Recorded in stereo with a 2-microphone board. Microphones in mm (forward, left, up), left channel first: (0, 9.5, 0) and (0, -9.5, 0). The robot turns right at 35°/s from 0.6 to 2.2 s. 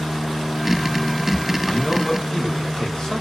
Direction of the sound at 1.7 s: 45° left (ahead or behind).